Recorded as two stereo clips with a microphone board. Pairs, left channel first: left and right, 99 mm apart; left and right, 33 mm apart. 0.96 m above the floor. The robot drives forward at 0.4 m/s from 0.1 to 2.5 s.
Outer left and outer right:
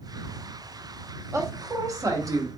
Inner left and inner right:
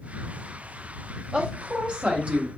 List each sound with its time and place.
1.3 s a woman speaking: 30° right (ahead or behind), 0.9 m; by 2.5 s 35° right (ahead or behind), 0.9 m